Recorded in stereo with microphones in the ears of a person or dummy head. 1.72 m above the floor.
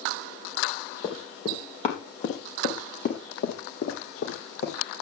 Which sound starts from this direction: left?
Running footsteps, at 1.0 s.